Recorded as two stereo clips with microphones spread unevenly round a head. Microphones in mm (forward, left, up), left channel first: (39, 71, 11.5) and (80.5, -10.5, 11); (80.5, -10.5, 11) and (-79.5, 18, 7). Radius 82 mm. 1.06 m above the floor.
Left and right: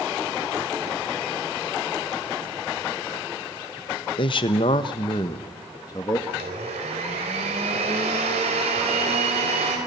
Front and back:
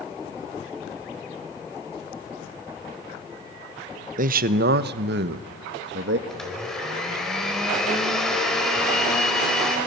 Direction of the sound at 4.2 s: 140° left.